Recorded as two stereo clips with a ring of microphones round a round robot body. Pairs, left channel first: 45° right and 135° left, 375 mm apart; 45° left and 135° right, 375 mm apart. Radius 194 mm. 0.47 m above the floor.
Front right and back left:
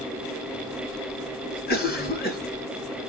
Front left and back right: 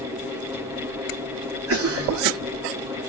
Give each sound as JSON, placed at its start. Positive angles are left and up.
{"t": 1.7, "sound": "a cough", "azimuth_deg": -100, "distance_m": 1.4}